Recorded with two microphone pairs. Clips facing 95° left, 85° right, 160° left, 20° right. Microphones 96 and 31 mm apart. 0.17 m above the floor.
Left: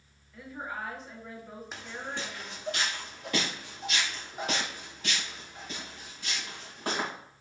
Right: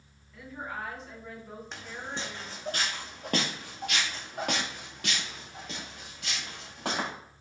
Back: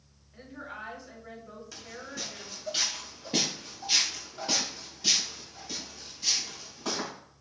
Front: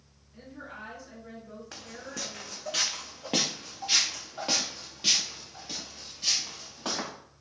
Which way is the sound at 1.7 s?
15° left.